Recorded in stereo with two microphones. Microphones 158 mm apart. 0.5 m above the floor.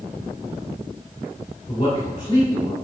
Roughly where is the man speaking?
Left.